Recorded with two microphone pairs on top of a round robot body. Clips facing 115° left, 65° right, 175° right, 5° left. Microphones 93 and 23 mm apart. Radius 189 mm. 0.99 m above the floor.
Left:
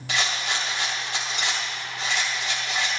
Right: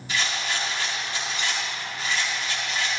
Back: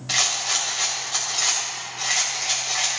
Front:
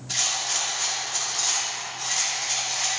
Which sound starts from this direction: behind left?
A rattle, at 0.1 s.